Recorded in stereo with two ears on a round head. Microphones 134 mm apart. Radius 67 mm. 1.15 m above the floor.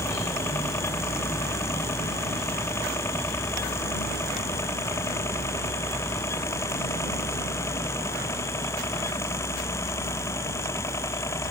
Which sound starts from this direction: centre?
A helicopter, at 0.0 s.